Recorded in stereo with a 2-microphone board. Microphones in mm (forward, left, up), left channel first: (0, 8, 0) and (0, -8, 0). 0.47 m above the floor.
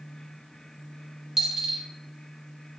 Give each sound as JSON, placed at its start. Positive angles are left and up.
{"t": 1.4, "sound": "a dropped coin", "side_deg": -15, "distance_m": 0.9}